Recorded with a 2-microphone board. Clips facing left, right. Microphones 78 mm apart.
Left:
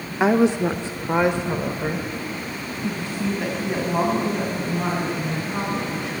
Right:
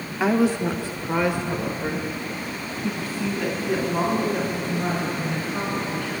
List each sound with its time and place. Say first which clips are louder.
0.2 s a woman speaking: left 3 dB; 20° left (ahead or behind), 0.9 m